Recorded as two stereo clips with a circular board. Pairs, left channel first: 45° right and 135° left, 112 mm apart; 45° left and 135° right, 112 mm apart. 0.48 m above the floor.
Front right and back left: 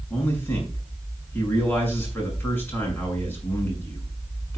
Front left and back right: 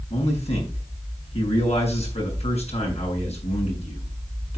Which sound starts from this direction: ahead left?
A man speaking, at 0.1 s.